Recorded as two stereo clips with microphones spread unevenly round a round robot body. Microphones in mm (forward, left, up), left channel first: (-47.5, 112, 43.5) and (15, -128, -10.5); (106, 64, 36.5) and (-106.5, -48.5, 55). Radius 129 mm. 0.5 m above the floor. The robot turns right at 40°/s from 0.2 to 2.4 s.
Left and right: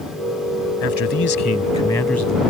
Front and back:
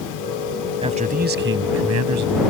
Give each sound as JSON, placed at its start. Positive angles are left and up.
{"t": 0.8, "sound": "a man speaking", "azimuth_deg": 140}